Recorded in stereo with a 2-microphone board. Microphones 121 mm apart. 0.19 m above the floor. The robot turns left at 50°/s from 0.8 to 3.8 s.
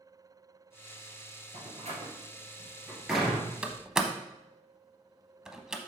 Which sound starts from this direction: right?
A door slam, at 1.5 s.